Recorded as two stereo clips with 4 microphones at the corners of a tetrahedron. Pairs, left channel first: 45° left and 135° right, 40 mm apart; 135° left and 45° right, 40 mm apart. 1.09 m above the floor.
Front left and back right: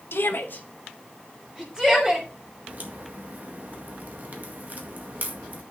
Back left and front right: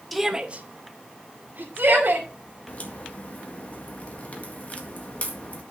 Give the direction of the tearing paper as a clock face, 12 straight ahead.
I don't hear tearing paper.